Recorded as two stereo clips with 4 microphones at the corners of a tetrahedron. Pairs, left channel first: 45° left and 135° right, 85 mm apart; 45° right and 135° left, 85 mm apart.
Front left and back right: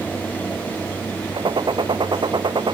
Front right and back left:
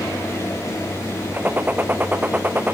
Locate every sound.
1.3 s a gunshot: 155° right